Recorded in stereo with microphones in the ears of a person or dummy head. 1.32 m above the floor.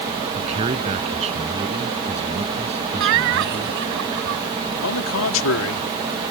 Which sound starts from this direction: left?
A man speaking, at 4.8 s.